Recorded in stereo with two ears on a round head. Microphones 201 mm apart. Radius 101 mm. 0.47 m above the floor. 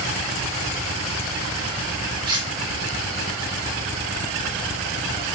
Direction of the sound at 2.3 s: 20° right (ahead or behind).